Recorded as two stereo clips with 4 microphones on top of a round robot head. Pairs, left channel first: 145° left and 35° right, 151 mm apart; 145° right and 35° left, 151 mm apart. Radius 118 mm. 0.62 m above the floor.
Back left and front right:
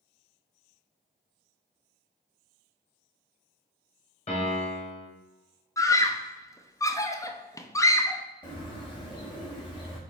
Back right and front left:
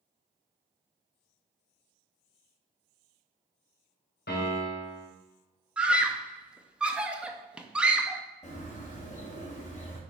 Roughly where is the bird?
Behind.